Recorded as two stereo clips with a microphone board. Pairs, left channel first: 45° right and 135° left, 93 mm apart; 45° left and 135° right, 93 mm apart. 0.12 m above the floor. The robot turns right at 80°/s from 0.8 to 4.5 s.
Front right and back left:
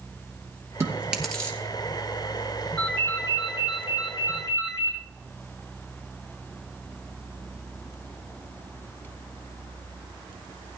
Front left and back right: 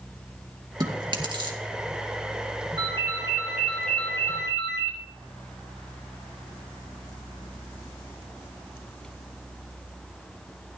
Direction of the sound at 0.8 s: 170° right.